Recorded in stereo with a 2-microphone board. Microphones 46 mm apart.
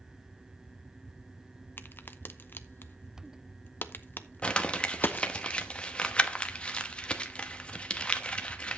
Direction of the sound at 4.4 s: 25° left (ahead or behind).